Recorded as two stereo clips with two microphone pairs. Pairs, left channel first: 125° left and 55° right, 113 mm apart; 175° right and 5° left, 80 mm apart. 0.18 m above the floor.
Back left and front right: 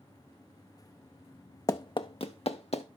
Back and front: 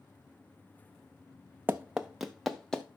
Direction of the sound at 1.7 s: 70° left.